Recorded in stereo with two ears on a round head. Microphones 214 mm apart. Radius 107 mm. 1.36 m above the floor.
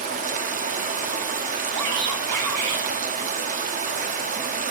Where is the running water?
35° right (ahead or behind), 0.9 m.